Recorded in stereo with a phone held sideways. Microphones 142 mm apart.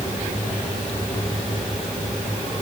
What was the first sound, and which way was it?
Only background noise.